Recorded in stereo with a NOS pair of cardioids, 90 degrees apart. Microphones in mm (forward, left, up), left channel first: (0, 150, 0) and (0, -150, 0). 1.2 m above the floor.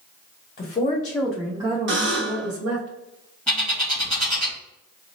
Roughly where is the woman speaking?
Ahead left.